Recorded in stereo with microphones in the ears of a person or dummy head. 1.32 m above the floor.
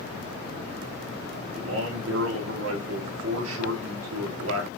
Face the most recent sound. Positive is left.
turn(degrees=-70)  # may be behind; listen again after turning